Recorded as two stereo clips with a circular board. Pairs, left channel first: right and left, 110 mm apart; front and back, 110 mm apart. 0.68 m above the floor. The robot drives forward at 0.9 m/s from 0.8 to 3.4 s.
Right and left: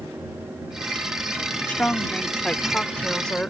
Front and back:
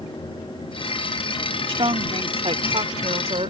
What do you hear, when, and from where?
1.7 s a woman speaking: 165° right; by 3.5 s 170° right